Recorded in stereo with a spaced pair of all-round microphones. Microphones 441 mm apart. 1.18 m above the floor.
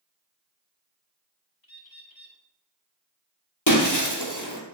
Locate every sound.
1.6 s a bird: 55° left (ahead or behind), 1.4 m
3.7 s breaking glass: 45° left (ahead or behind), 1.9 m